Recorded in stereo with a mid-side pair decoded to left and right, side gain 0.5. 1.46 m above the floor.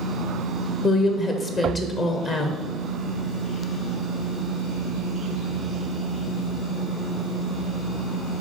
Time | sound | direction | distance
0.8 | a woman speaking | 50° left | 0.8 m